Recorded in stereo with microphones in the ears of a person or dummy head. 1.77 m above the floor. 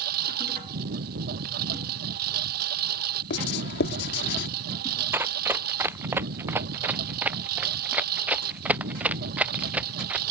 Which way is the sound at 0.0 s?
50° right (ahead or behind).